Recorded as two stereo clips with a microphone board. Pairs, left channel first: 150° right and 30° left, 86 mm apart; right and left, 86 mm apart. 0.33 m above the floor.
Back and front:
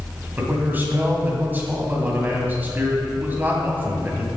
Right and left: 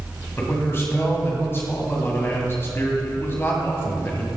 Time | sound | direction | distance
0.4 | a man speaking | 35° right | 2 m